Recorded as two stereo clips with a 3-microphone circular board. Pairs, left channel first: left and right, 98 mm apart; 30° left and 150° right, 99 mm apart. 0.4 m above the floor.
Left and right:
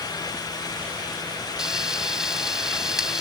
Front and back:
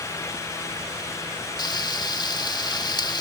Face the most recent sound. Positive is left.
turn(degrees=-5)